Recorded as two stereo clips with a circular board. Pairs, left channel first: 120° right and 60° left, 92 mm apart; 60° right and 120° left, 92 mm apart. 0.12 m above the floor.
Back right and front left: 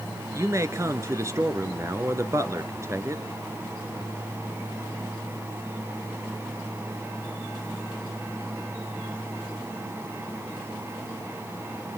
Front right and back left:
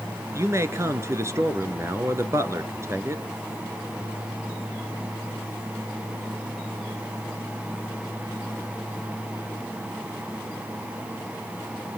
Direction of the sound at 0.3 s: 90° left.